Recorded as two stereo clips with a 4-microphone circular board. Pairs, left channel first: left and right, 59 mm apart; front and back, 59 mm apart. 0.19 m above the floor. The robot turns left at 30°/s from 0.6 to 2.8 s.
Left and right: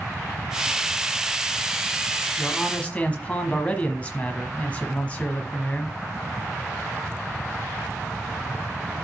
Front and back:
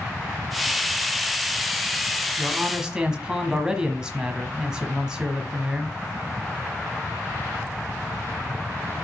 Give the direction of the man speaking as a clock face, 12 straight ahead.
8 o'clock.